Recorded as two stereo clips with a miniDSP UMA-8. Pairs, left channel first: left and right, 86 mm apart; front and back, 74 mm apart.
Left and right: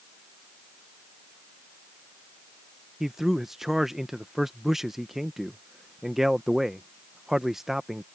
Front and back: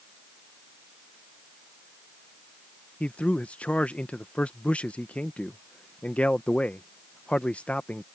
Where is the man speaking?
10° right.